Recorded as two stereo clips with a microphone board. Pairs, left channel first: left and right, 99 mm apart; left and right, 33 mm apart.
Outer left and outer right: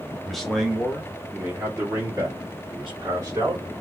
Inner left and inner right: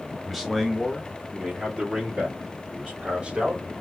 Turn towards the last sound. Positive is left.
turn(degrees=-35)  # may be behind; listen again after turning